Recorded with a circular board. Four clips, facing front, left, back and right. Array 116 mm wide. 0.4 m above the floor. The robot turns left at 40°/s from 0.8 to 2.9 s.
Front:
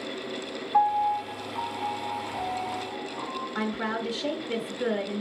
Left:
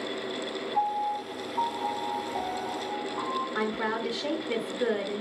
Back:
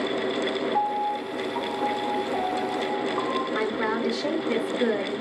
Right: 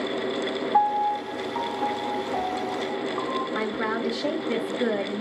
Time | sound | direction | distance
0.7 | a piano | 80° right | 2.5 m
3.5 | a woman speaking | 160° right | 1.2 m